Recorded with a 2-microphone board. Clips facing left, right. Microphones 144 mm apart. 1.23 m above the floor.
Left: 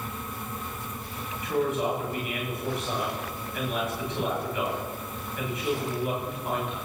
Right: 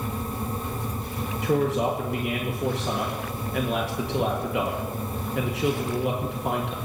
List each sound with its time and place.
1.4 s a man speaking: 80° right, 1.9 m